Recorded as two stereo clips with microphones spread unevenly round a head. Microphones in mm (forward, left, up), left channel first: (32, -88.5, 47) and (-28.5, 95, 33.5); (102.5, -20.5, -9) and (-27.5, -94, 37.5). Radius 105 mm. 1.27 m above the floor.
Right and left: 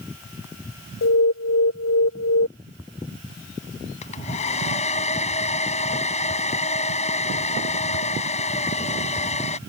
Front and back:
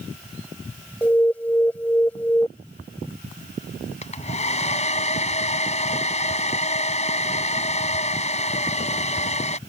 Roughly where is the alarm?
Ahead right.